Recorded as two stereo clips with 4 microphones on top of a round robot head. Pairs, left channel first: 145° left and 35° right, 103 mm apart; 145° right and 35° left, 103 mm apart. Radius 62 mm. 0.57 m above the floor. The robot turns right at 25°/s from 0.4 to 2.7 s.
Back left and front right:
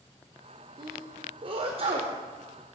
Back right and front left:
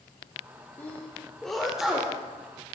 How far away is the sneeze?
About 1.9 m.